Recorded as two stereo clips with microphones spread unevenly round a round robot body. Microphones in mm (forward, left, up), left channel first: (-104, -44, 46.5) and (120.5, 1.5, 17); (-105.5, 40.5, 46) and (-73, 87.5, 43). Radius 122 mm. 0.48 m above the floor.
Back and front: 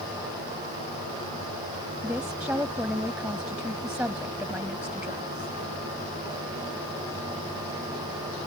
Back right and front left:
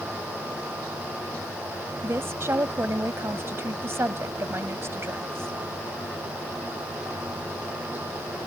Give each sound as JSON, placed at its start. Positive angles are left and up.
{"t": 2.0, "sound": "a woman speaking", "azimuth_deg": 95}